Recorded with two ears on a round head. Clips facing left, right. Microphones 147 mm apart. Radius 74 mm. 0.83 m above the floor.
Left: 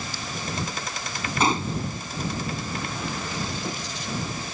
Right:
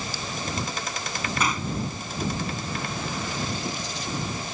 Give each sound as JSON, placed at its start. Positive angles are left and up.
{"t": 1.4, "sound": "a gunshot", "side_deg": 25}